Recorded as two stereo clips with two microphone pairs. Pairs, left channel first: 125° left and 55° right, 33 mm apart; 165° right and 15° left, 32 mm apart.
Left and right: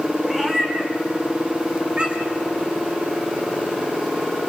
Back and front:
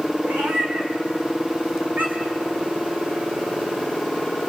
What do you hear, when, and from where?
0.2 s a cat meowing: 25° left, 4.5 m; by 2.4 s straight ahead, 4.5 m